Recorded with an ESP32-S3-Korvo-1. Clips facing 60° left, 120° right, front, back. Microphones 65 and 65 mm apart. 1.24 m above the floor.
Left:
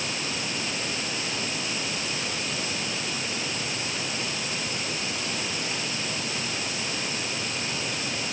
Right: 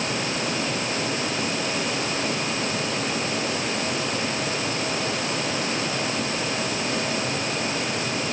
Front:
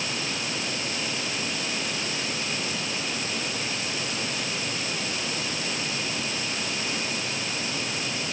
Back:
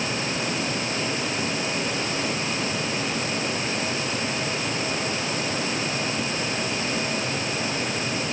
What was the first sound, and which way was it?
Only background noise.